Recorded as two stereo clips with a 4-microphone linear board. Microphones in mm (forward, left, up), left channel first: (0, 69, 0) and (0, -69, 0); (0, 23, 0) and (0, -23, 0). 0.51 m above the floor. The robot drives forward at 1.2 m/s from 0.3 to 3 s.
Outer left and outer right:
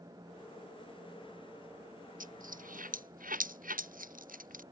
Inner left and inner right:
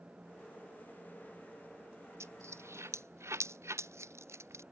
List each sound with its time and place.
2.2 s a dropped coin: 80° right; by 4.6 s 85° right